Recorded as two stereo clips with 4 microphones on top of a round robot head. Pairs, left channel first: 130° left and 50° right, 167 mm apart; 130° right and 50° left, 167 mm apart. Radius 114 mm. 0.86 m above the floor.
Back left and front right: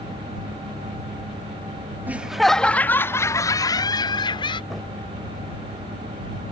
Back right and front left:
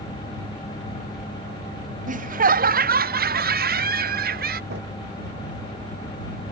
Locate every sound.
2.1 s laughter: 30° left; by 4.6 s 70° left
4.7 s a drawer: 40° left